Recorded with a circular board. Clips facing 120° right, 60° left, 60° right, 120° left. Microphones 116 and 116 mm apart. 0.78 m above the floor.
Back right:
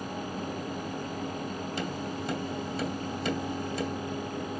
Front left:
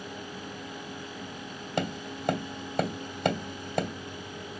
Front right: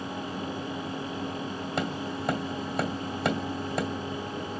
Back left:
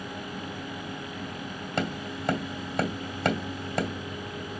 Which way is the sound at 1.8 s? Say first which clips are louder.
Front left 5 dB, back left 1 dB; 25° left.